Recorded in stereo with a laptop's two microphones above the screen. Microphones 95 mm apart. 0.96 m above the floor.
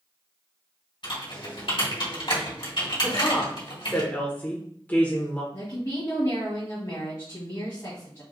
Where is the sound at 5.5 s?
35° left (ahead or behind), 1.5 m.